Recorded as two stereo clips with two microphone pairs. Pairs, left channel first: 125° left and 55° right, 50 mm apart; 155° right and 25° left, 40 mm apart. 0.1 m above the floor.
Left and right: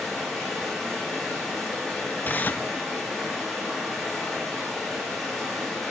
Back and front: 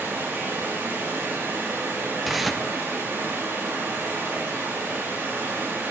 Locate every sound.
0.0 s running water: 30° left, 9.5 m
2.2 s tearing paper: 110° left, 0.5 m